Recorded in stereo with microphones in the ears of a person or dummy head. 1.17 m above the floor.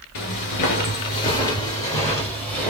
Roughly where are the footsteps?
Left.